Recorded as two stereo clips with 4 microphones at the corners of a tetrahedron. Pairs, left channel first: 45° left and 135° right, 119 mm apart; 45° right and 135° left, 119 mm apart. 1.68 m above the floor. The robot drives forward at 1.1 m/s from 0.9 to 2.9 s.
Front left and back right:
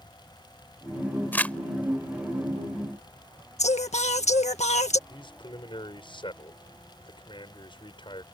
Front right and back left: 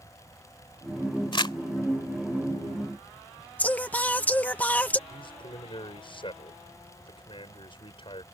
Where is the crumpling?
25° right; by 1.6 s 30° right.